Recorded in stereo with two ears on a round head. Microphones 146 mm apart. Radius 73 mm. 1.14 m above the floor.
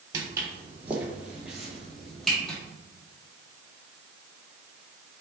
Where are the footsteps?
20° right (ahead or behind), 1.6 m; by 2.6 s 5° left (ahead or behind), 2.5 m.